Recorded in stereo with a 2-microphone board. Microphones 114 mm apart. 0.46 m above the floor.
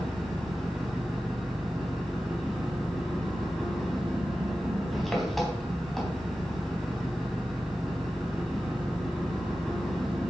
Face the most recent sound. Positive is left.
turn(degrees=0)  # may be behind; listen again after turning